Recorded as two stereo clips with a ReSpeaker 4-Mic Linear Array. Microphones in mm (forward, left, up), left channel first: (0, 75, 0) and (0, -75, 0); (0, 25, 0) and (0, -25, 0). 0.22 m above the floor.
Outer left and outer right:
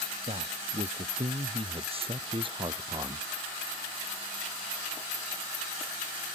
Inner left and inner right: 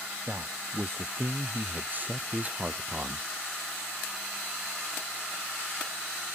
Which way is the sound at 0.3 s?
50° right (ahead or behind).